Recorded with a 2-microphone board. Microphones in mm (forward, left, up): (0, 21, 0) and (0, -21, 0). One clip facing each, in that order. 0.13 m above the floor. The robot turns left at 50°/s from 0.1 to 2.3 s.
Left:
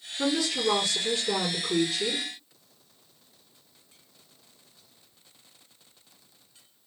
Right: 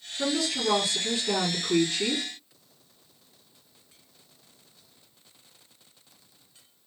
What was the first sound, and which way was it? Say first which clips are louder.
A woman speaking: left 1 dB; 20° left.